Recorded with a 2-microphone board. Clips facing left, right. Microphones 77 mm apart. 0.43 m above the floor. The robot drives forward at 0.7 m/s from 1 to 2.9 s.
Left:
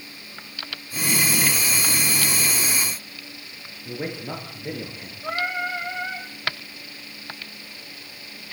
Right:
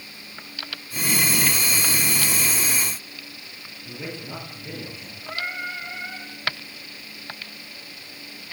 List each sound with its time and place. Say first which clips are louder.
3.9 s a man speaking: left 5 dB; 50° left (ahead or behind), 9.5 m
5.2 s singing: left 5 dB; 75° left (ahead or behind), 5.5 m